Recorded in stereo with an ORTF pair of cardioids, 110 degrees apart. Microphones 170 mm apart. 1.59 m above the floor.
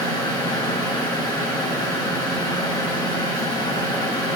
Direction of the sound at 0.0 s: 25° left.